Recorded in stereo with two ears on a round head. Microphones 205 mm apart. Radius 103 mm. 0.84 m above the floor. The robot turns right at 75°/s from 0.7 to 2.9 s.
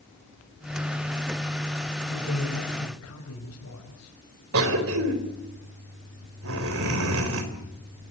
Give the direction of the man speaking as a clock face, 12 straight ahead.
11 o'clock.